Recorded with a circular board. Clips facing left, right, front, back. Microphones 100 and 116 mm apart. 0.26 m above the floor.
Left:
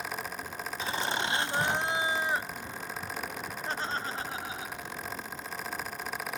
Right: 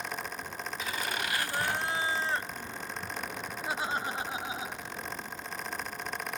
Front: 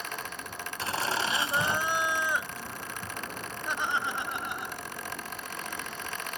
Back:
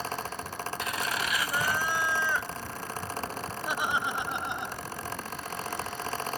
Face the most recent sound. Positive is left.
turn(degrees=-135)